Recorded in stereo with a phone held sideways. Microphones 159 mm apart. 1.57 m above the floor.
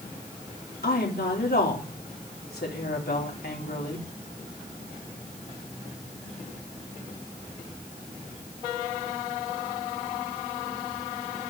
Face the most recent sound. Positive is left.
turn(degrees=85)